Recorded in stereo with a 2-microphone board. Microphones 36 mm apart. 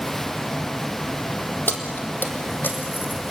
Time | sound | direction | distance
1.7 | keys jangling | 65° left (ahead or behind) | 2.5 m